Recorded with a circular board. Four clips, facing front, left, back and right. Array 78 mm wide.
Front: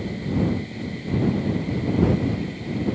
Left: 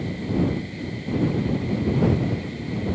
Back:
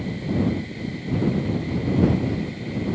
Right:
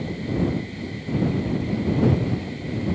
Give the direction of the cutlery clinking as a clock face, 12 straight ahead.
No cutlery clinking in this recording.